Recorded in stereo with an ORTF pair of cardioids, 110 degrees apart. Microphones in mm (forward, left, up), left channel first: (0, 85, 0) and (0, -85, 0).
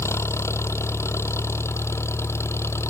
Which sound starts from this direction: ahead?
An engine running, at 0.0 s.